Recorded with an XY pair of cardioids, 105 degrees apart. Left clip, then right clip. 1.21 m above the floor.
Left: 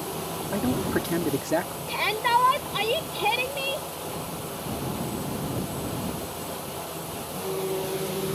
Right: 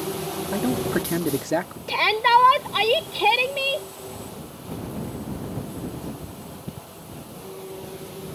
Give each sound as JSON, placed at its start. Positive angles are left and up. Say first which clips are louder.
{"t": 0.5, "sound": "a man speaking", "louder": "right 2 dB", "azimuth_deg": -15}
{"t": 1.9, "sound": "a shout", "louder": "right 6 dB", "azimuth_deg": -40}